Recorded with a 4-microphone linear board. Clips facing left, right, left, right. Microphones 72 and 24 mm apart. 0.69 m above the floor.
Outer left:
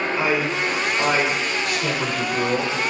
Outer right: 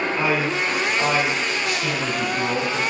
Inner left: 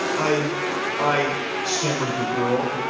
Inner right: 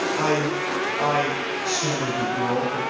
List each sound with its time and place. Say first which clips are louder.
0.2 s a man speaking: outer left 1 dB, inner left 1 dB; 10° left (ahead or behind), 2 m; by 2.8 s 65° left (ahead or behind), 2.5 m